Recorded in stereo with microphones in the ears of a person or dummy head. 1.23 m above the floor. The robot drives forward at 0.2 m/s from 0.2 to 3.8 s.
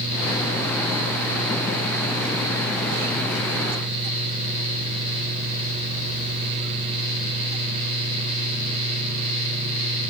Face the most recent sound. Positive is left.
No sound to turn to.